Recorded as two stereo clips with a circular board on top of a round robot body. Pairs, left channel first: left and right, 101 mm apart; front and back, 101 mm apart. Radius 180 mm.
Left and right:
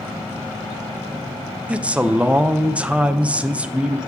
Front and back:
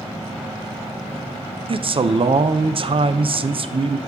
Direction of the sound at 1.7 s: 165° right.